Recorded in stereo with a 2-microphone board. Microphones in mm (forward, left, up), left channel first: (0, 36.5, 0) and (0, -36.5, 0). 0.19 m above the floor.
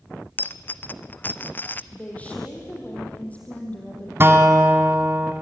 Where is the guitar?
30° right (ahead or behind), 1.4 m.